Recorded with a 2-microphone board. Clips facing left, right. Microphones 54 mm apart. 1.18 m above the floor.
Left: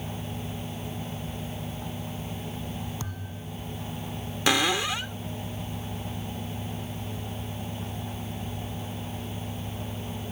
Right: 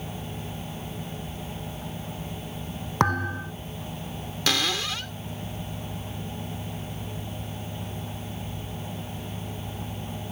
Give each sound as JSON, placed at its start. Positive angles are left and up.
{"t": 3.0, "sound": "a thud", "side_deg": -60}
{"t": 4.5, "sound": "a cupboard door", "side_deg": 20}